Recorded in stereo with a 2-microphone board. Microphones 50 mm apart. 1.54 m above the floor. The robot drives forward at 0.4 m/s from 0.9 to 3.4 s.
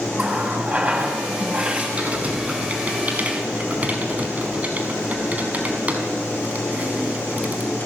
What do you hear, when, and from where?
0.2 s a running tap: 30° right (ahead or behind), 7 m
2.0 s typing on a keyboard: 25° right (ahead or behind), 6 m; by 7.7 s 30° right (ahead or behind), 5.5 m